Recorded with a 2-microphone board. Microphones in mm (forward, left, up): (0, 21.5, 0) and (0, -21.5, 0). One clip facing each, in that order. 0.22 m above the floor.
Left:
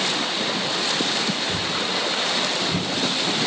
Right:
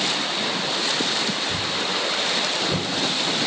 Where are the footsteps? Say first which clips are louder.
Even; centre (ahead or behind), 0.9 m; by 2.9 s 65° right (ahead or behind), 0.8 m.